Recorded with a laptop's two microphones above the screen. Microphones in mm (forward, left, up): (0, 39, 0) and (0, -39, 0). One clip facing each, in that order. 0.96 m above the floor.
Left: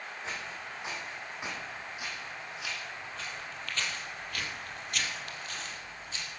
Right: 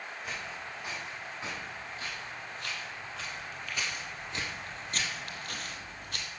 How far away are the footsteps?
About 3.5 m.